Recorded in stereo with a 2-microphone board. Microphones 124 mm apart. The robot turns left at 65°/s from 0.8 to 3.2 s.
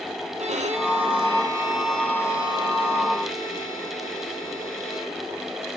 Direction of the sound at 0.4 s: 110° right.